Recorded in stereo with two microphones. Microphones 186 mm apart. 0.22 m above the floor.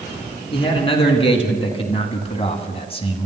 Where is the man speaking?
30° left (ahead or behind), 3 m.